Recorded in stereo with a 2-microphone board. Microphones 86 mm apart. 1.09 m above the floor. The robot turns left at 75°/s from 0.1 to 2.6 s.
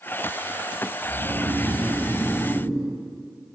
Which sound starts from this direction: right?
Snoring, at 1.0 s.